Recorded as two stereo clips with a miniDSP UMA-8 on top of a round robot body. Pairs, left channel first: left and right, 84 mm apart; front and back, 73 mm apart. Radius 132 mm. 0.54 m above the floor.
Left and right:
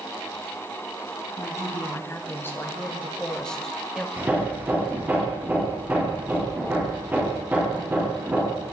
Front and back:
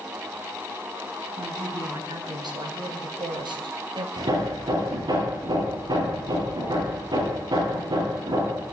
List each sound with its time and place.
1.4 s a woman speaking: 150° left, 5 m; by 4.1 s 175° right, 2.5 m
4.2 s hammering: 160° right, 9 m